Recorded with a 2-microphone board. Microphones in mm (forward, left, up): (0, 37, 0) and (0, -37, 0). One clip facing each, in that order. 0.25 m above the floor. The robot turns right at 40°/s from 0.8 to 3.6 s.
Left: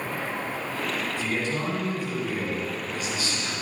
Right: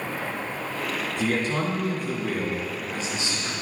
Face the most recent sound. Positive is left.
turn(degrees=-15)